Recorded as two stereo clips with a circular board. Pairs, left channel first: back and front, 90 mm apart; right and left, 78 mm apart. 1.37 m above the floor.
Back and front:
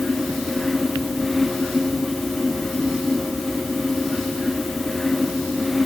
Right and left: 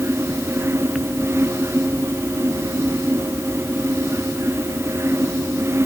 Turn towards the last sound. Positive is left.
No sound to turn to.